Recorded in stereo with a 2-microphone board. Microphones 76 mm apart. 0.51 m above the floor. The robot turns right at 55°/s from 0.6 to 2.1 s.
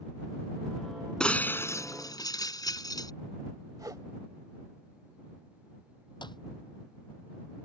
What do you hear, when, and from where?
1.2 s breaking glass: 10° left; by 3.1 s 60° left
3.8 s a whoosh: 55° right (ahead or behind)
6.2 s a clap: 80° left